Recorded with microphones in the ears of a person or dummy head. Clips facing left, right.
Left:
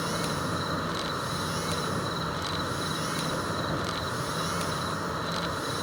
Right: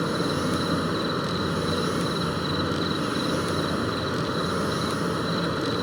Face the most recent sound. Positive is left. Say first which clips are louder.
# right 6 dB
turn(degrees=-35)  # may be behind; listen again after turning